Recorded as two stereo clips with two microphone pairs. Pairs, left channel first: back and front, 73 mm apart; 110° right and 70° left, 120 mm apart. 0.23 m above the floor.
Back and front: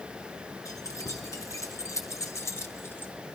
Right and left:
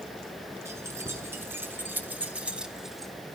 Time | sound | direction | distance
0.7 | keys jangling | 140° left | 2.5 m